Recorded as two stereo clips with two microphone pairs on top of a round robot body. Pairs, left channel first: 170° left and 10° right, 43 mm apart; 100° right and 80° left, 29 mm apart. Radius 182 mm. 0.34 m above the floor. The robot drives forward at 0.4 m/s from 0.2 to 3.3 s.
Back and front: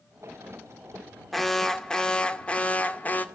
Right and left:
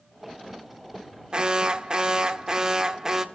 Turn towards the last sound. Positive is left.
turn(degrees=140)